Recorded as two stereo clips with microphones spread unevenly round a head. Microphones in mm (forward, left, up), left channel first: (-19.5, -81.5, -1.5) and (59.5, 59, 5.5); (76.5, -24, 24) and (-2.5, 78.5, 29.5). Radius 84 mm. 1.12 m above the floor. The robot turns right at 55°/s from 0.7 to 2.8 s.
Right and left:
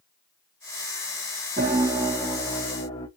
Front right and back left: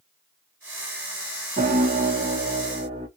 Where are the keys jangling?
I don't hear keys jangling.